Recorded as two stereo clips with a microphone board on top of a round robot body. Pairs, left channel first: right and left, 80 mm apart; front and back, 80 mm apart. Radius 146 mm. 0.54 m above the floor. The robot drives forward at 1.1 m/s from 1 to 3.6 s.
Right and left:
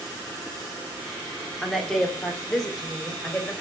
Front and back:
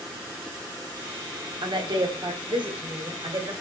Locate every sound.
1.6 s a woman speaking: 175° right, 2 m; by 3.5 s straight behind, 4 m